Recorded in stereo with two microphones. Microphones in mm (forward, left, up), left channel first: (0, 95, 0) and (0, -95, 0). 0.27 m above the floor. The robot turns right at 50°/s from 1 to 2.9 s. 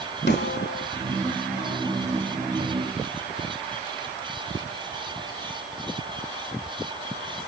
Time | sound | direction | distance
0.3 | a snare drum | 60° left (ahead or behind) | 0.7 m